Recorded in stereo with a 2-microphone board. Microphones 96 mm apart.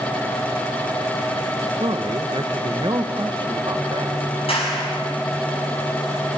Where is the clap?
80° left, 7.5 m.